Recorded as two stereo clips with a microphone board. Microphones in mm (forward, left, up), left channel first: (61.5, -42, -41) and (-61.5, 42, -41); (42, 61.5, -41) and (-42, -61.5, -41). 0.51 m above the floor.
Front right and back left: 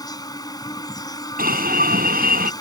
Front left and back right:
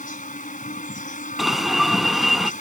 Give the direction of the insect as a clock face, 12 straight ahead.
11 o'clock.